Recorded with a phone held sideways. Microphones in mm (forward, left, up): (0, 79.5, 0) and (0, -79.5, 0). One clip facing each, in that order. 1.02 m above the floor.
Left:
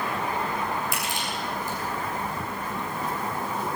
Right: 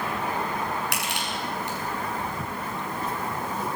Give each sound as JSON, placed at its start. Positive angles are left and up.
{"t": 0.9, "sound": "crushing", "side_deg": -75, "distance_m": 8.5}